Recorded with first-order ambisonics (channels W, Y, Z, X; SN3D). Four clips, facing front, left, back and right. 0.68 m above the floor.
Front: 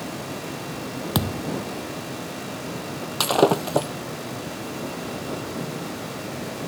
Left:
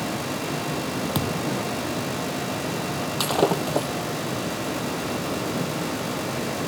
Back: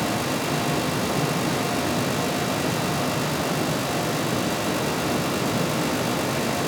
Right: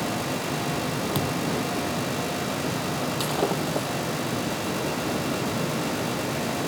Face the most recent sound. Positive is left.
turn(degrees=15)